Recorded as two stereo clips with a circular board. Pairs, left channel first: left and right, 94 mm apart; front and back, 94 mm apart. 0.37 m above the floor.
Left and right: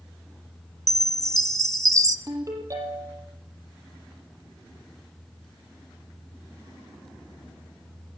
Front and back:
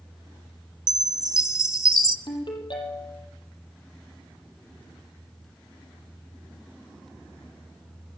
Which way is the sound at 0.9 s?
140° right.